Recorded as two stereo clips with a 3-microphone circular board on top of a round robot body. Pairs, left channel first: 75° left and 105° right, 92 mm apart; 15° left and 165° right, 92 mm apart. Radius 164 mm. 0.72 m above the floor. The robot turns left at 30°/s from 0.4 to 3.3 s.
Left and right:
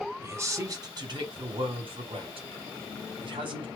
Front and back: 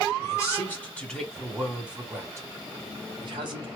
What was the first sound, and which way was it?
A man speaking, 45° right.